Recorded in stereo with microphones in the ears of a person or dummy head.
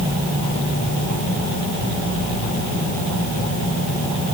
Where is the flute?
No flute in this recording.